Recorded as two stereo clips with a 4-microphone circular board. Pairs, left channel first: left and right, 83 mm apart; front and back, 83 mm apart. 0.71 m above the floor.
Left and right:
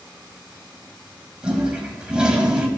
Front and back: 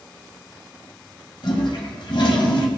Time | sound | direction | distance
1.4 | a toilet flushing | 10° right | 1.5 m